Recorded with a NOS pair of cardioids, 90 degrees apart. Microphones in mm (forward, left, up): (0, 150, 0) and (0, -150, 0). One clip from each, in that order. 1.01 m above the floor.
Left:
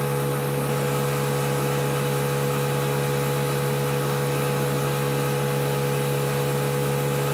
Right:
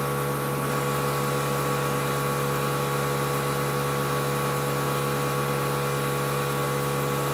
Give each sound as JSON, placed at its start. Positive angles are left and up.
{"t": 0.0, "sound": "a machine running", "azimuth_deg": 65, "distance_m": 2.0}